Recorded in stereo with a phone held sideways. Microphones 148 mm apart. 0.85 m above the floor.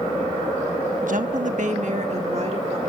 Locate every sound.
1.0 s a woman speaking: 70° right (ahead or behind), 0.9 m; by 2.8 s 50° right (ahead or behind), 1.9 m